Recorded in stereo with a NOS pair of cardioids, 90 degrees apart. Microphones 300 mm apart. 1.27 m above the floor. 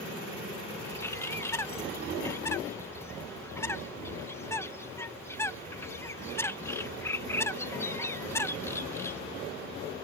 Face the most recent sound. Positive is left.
turn(degrees=10)